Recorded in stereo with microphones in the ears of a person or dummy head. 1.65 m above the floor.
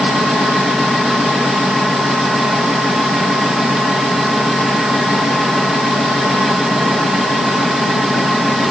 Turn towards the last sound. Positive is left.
turn(degrees=-5)  # may be behind; listen again after turning